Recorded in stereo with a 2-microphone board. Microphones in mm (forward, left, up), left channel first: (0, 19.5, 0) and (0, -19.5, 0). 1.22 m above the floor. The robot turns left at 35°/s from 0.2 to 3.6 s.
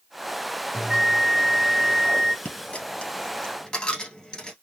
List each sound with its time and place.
0.7 s a bell: 25° right (ahead or behind), 0.9 m; by 2.4 s 20° right (ahead or behind), 0.9 m
2.5 s a dropped coin: 40° left (ahead or behind), 1.4 m; by 4.5 s 20° left (ahead or behind), 1.4 m